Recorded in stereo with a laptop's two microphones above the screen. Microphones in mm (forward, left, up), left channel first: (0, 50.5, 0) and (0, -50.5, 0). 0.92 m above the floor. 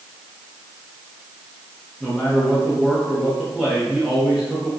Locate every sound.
2.0 s a man speaking: centre (ahead or behind), 1.3 m